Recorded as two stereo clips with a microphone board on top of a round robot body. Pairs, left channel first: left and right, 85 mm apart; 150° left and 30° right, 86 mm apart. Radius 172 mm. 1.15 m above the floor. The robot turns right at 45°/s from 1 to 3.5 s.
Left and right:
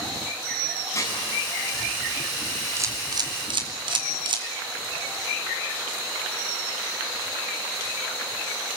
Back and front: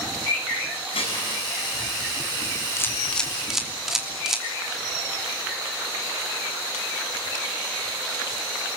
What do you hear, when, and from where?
0.9 s dishes clattering: 150° left, 7.5 m; by 1.3 s 160° left, 7.5 m
2.8 s a camera shutter: 150° right, 3 m; by 4.5 s 115° right, 3 m